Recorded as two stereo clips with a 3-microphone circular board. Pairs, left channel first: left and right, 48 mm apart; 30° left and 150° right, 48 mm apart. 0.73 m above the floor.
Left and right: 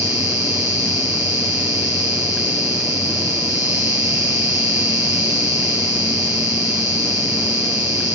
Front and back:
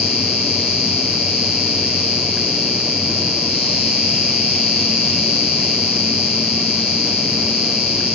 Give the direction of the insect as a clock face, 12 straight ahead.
2 o'clock.